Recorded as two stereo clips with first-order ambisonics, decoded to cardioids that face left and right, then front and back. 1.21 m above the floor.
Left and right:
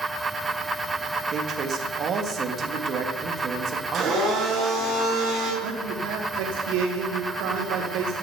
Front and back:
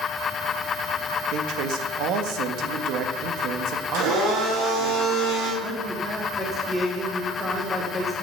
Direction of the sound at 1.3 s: 145° right.